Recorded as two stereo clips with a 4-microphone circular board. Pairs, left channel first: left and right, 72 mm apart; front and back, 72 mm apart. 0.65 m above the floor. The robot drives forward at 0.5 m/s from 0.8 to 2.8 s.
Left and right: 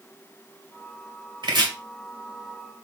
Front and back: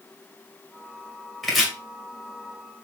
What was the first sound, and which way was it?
Chopping, 90° right.